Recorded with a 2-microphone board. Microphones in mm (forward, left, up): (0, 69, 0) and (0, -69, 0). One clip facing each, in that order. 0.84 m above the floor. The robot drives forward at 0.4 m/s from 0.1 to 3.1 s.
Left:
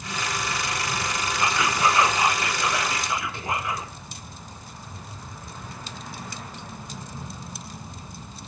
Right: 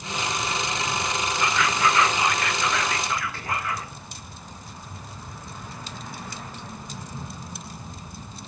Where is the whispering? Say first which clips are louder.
Left 1 dB; 20° left (ahead or behind), 0.7 m.